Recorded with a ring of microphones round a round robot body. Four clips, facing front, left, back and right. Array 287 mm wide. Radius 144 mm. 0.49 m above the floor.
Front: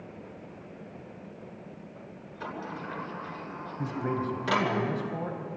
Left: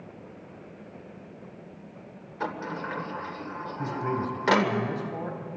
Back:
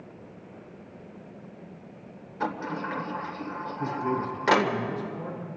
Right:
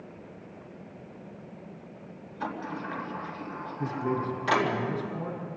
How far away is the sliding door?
About 1.7 m.